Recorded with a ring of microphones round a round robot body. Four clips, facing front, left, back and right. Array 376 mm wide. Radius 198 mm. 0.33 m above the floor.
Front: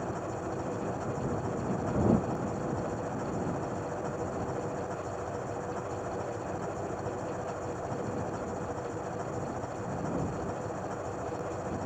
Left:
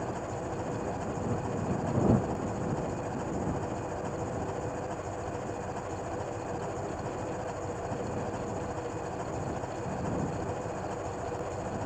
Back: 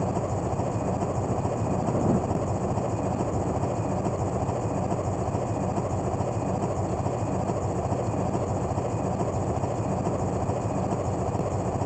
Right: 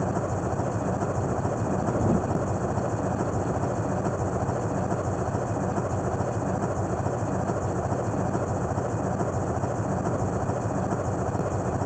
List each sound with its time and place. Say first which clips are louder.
0.0 s an engine running: right 7 dB, back 7 dB; 135° right